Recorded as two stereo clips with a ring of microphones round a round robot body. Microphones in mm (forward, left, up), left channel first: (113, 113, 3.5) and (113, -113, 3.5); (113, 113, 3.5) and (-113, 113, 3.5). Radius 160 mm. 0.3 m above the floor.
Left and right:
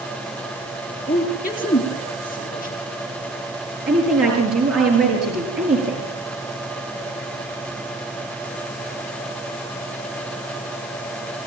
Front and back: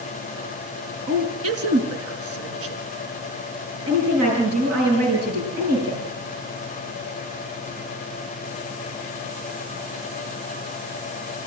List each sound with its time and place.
1.1 s a woman speaking: 165° left, 4 m
3.9 s a woman speaking: 140° right, 6 m